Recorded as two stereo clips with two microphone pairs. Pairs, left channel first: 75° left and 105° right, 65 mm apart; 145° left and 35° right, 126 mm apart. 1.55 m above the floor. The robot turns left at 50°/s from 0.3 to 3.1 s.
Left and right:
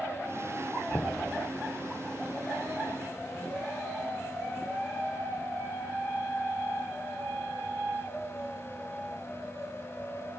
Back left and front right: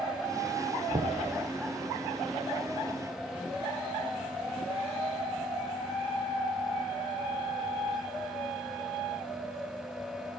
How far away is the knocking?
About 0.9 m.